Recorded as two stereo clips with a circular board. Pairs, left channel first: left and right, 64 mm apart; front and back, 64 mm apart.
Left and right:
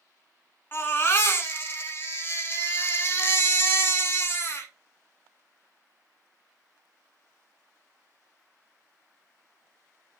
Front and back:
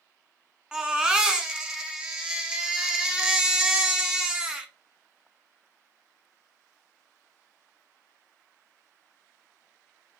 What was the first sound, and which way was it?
A baby crying, 105° left.